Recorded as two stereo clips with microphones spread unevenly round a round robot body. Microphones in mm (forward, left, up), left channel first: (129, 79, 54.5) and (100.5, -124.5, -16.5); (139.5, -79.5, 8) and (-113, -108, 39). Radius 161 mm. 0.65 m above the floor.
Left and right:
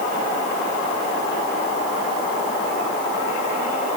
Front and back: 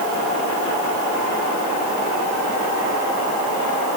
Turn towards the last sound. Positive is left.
No sound to turn to.